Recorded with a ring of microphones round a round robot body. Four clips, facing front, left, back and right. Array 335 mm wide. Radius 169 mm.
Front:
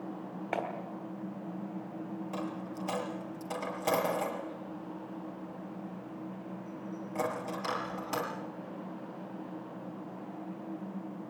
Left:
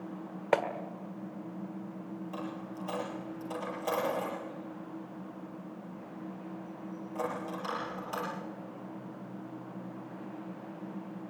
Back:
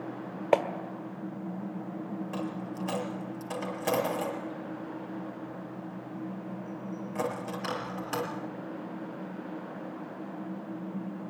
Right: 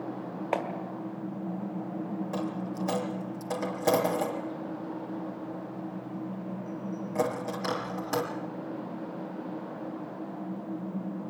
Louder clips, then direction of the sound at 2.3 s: Right 6 dB, back 1 dB; 105° right.